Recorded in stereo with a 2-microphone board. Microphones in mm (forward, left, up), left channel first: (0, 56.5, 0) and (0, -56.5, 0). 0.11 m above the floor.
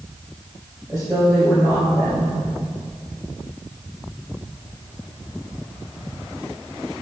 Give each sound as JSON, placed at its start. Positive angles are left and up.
{"t": 0.9, "sound": "a woman speaking", "side_deg": -5, "distance_m": 2.5}